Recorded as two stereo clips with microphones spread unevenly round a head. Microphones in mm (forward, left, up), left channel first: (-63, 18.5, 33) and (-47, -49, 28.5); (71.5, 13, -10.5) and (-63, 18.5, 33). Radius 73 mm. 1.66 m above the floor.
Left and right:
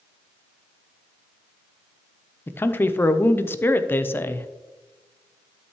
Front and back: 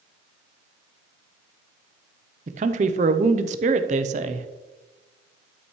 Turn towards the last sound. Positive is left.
turn(degrees=160)